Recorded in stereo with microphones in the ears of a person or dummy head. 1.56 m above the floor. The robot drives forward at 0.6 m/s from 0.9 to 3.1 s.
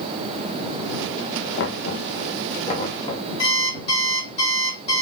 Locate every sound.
1.6 s knocking: 70° left (ahead or behind), 0.8 m; by 3.3 s 30° left (ahead or behind), 1.4 m
3.4 s an alarm clock: 40° left (ahead or behind), 1.9 m